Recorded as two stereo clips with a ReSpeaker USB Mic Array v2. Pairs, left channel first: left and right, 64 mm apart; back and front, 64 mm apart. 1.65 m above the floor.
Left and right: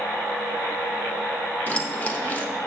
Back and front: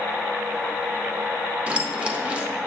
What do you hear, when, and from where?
1.7 s keys jangling: 55° left, 0.7 m